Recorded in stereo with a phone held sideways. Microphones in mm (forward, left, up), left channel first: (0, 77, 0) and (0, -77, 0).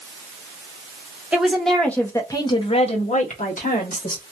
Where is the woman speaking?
5° right (ahead or behind), 1.0 m; by 4.2 s 70° left (ahead or behind), 1.3 m.